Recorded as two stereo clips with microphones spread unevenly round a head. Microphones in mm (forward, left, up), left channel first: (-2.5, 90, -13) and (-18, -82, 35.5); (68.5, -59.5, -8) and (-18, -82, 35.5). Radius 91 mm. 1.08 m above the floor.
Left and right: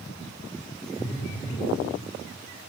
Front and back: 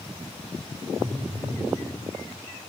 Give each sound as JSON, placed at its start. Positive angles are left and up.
{"t": 1.0, "sound": "a phone buzzing", "azimuth_deg": 145, "distance_m": 6.0}